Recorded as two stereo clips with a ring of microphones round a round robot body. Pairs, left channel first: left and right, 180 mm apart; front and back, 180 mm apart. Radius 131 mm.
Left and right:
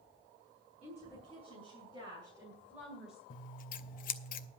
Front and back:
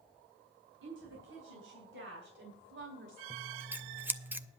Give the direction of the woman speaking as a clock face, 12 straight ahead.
5 o'clock.